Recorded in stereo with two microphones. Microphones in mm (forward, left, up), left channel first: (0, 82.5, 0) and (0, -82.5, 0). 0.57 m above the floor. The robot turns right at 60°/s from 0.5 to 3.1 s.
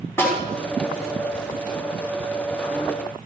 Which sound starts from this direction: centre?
A snare drum, at 0.2 s.